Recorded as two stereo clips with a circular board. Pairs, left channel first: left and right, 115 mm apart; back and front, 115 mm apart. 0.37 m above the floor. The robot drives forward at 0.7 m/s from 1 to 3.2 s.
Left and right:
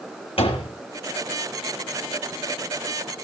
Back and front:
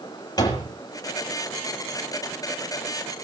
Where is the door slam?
125° left, 6.5 m.